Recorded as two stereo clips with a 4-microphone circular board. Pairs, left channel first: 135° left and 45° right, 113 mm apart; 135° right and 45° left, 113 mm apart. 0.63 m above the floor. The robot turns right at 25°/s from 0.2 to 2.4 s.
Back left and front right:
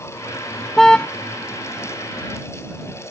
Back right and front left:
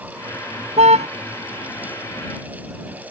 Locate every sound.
0.8 s a car horn: 45° left; by 1.1 s 55° left